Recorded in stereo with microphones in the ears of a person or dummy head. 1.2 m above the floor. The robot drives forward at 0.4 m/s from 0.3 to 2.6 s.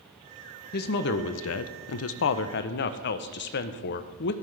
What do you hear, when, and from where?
0.7 s a woman speaking: 50° left (ahead or behind), 0.7 m; by 4.3 s 55° left (ahead or behind), 0.7 m